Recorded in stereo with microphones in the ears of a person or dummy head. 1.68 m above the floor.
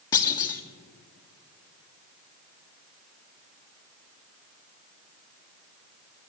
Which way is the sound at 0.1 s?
20° left (ahead or behind).